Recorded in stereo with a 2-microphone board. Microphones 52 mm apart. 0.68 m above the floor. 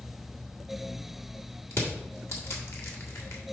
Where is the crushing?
55° left (ahead or behind), 1.7 m.